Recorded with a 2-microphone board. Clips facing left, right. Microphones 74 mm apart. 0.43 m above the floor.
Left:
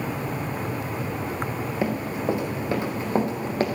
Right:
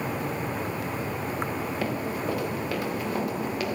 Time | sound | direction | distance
1.8 | running footsteps | 20° left (ahead or behind) | 3 m